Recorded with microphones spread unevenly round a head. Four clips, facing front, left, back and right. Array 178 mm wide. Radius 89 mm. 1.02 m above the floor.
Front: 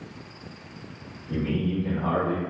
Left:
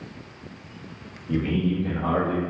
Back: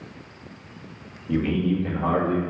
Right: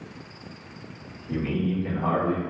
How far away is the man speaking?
About 1.6 m.